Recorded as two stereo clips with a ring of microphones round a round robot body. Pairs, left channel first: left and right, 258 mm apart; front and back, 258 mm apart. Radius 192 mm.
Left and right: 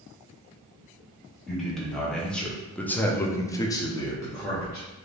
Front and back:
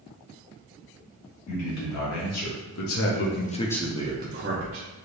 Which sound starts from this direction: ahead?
A man speaking, at 1.5 s.